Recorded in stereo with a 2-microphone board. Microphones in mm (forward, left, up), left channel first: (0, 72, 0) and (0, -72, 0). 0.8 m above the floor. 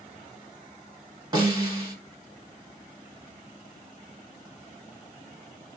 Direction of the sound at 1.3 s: 30° right (ahead or behind).